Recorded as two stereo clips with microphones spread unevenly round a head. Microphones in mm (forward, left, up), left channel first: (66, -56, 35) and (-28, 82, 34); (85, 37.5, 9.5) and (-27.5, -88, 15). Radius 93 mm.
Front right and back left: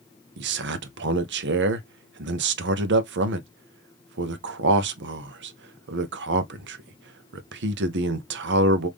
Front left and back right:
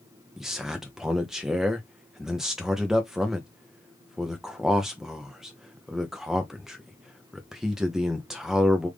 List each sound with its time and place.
0.4 s a man speaking: 140° left, 0.7 m